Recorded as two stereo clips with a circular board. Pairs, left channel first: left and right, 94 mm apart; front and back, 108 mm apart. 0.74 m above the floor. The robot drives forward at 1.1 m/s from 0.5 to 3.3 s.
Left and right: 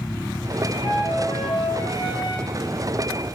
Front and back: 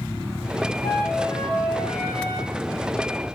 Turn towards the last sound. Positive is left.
turn(degrees=95)